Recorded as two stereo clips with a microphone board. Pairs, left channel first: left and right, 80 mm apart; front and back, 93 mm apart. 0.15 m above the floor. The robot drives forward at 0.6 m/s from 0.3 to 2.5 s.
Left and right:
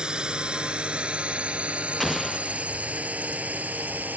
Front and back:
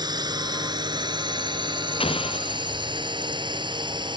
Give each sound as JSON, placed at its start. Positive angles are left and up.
{"t": 0.0, "sound": "a drone", "azimuth_deg": -165}
{"t": 2.0, "sound": "an explosion", "azimuth_deg": 0}